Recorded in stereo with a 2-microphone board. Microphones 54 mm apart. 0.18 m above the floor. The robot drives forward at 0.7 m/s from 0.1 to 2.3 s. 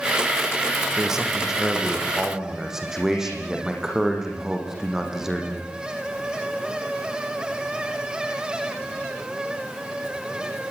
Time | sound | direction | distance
1.0 | a man speaking | 10° right (ahead or behind) | 5.5 m